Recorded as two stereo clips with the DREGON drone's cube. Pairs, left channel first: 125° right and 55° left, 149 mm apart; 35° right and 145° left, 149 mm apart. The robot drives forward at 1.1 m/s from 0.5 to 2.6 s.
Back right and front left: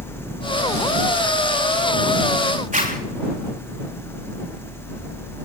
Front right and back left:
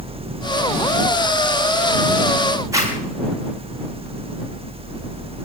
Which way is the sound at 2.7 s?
80° left.